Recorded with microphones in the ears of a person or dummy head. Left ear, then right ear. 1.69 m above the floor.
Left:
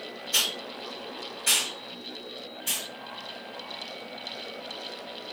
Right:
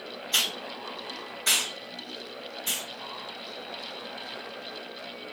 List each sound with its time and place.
0.3 s a hiss: 35° right (ahead or behind), 0.9 m